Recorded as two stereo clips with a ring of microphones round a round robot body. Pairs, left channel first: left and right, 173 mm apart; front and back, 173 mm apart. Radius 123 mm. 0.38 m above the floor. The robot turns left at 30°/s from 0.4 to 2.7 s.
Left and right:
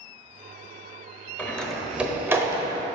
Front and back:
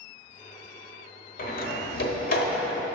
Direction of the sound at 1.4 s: 10° left.